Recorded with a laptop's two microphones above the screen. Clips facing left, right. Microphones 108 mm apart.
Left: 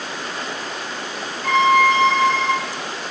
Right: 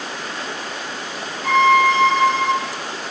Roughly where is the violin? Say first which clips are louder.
Right 1 dB; centre.